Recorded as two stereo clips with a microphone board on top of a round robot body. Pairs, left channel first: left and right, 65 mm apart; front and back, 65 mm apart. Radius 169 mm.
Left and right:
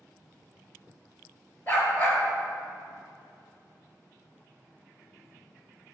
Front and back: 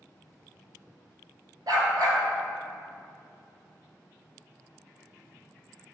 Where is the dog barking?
150° left, 3 m.